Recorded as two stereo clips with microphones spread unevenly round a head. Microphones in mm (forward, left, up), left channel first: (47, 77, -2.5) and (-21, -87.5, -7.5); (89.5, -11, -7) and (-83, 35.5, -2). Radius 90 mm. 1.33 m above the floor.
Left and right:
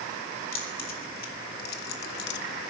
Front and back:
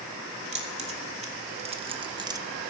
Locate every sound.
0.5 s keys jangling: 110° left, 3 m; by 2.4 s 95° left, 0.6 m